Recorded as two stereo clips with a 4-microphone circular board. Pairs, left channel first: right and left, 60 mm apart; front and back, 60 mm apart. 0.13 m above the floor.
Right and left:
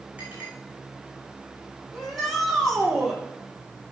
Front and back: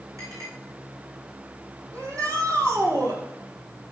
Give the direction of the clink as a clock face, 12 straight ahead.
7 o'clock.